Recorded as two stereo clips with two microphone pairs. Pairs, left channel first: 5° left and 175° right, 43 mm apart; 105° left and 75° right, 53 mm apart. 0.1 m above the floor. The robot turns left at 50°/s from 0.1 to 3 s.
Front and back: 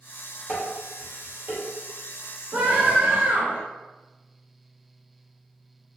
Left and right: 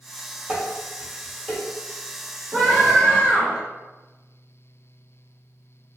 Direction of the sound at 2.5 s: 170° right.